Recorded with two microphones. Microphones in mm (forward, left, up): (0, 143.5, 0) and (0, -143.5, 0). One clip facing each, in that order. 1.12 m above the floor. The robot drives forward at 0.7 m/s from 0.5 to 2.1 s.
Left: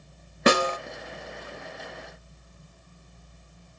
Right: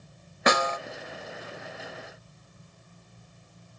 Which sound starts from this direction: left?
A snare drum, at 0.5 s.